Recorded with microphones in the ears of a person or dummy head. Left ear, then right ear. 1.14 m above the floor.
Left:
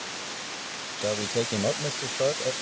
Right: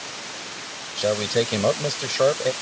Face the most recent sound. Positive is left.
turn(degrees=-70)  # may be behind; listen again after turning